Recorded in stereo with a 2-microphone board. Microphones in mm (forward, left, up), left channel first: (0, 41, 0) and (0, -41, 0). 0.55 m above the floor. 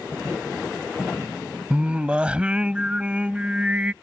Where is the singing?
15° right (ahead or behind).